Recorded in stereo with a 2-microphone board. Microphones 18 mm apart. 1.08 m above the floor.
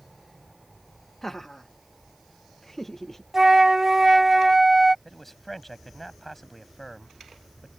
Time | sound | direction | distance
1.2 | laughter | 25° left (ahead or behind) | ?
3.3 | a flute | 20° right (ahead or behind) | ?
5.0 | a man speaking | 10° left (ahead or behind) | ?